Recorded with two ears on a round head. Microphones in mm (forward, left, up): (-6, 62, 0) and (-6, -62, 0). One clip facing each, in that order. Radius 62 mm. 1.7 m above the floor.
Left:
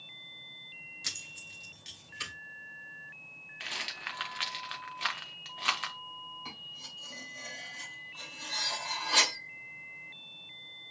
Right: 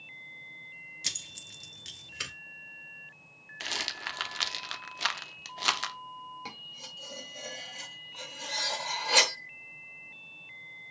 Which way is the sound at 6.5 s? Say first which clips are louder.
Right 3 dB; 65° right (ahead or behind).